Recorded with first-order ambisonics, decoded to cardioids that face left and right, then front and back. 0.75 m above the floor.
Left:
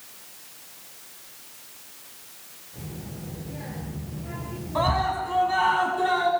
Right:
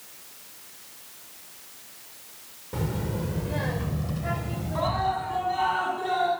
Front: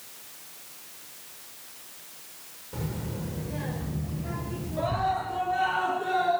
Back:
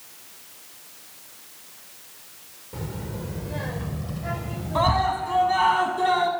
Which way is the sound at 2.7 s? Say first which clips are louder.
Right 10 dB, back 1 dB; 95° right.